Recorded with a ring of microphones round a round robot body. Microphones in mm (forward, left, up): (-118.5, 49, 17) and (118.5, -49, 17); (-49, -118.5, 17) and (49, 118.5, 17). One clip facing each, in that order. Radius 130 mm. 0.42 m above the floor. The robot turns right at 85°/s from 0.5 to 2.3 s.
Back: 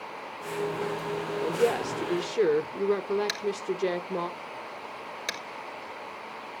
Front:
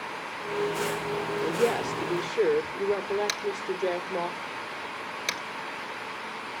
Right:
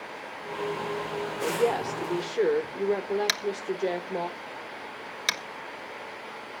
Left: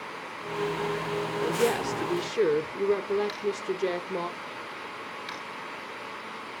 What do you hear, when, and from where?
1.4 s a woman speaking: 35° left, 1.0 m; by 4.3 s 110° left, 1.0 m
3.3 s tapping: 105° right, 1.4 m